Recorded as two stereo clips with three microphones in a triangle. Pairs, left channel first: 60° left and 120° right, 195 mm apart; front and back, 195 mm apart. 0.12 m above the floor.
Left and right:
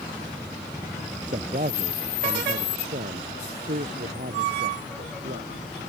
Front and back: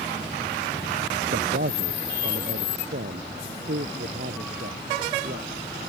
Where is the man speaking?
165° right; by 5.5 s 150° right.